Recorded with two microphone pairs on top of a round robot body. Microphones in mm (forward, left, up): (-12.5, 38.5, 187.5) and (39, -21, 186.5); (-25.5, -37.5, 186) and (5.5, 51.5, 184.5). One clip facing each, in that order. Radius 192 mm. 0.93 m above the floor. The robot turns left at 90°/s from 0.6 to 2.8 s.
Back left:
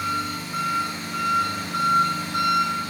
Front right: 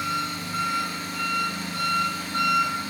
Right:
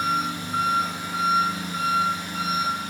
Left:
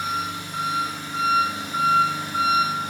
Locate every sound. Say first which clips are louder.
0.0 s an engine running: back left 1 dB, right 2 dB; 145° right, 4 m; by 2.9 s 15° left, 4 m